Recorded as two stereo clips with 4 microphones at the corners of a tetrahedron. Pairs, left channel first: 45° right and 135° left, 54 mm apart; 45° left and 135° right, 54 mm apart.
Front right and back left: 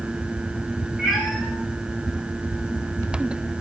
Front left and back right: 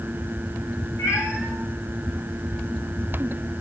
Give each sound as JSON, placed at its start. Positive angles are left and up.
{"t": 1.0, "sound": "a cat meowing", "azimuth_deg": 55, "distance_m": 6.5}